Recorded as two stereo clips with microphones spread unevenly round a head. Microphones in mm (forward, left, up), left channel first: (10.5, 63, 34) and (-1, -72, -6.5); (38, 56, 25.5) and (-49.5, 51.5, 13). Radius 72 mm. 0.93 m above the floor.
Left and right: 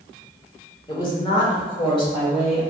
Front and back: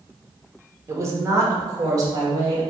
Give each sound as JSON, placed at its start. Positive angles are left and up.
{"t": 0.9, "sound": "a woman speaking", "azimuth_deg": 145, "distance_m": 1.0}